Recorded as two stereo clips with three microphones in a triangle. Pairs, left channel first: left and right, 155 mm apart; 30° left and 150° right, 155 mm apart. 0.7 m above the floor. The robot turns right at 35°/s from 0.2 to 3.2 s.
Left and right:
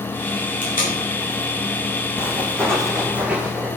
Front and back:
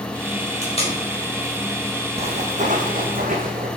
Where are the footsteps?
165° left, 2.5 m; by 3.7 s 175° right, 3.5 m.